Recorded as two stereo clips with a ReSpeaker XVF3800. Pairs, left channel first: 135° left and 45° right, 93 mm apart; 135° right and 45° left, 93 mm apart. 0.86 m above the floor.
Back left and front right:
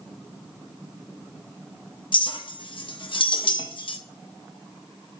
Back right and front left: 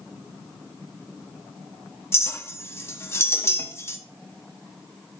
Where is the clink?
160° left, 0.6 m.